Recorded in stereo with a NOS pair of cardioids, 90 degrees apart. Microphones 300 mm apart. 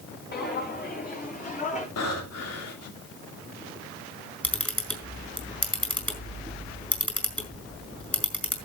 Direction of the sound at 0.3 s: 35° left.